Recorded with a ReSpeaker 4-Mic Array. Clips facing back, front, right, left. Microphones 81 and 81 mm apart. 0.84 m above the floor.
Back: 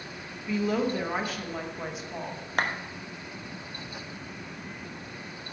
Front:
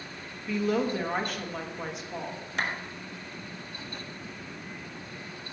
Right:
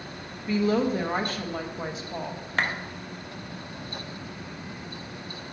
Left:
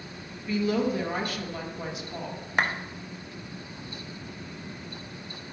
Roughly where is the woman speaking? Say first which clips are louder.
Even, right 2 dB; right.